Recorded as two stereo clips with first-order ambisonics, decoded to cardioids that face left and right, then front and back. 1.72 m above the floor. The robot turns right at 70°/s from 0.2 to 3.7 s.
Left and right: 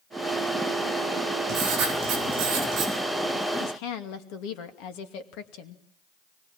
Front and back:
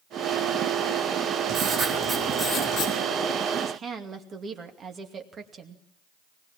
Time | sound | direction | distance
1.5 | writing | 125° right | 7 m
3.6 | a woman speaking | 105° left | 2.5 m